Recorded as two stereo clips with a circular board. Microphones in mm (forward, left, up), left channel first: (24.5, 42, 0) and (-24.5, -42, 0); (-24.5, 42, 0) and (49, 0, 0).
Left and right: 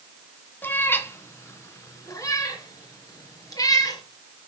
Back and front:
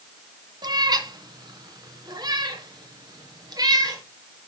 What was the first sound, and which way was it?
A cat meowing, 10° right.